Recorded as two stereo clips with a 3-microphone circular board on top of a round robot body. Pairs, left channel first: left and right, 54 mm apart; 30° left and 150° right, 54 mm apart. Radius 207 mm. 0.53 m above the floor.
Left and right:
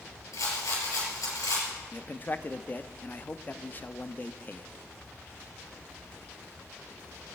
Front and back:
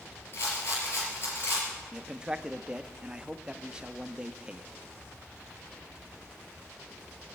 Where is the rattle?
80° left, 5 m.